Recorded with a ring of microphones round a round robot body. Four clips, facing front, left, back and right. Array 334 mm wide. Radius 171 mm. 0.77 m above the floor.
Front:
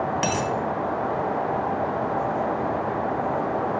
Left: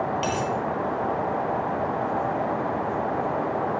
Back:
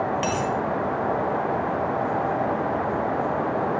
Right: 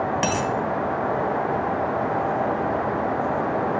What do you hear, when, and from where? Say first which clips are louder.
0.2 s a dropped coin: right 3 dB, even; 70° right, 2.5 m